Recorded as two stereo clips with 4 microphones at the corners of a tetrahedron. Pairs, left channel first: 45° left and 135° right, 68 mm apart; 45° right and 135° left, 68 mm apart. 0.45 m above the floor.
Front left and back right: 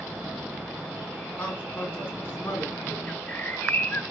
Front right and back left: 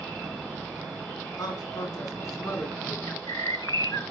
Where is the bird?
20° right, 1.5 m.